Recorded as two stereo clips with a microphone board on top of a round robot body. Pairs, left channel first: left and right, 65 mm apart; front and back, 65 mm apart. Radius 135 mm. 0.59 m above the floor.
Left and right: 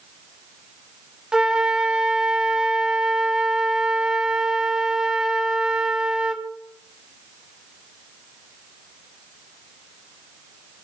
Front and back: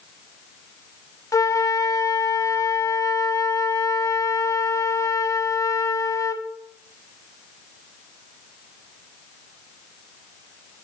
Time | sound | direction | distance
1.3 | a flute | 10° right | 1.2 m